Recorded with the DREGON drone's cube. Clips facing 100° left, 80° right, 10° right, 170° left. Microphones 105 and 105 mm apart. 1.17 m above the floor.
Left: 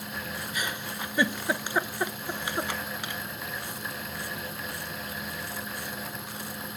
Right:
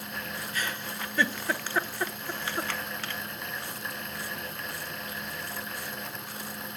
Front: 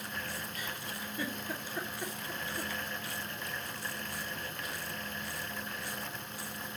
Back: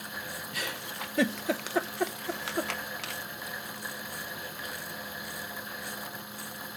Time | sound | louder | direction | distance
0.5 | a giggle | even, back 4 dB | 175° left | 0.5 m